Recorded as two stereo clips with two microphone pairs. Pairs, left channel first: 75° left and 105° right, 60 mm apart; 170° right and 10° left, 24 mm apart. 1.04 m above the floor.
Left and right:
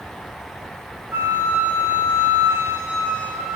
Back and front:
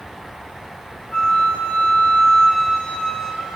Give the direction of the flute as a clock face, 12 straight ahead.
5 o'clock.